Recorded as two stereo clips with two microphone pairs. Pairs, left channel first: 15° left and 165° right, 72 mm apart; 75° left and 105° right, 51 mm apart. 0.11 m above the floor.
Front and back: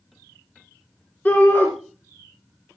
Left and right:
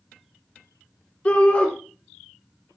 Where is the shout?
50° left, 1.8 m.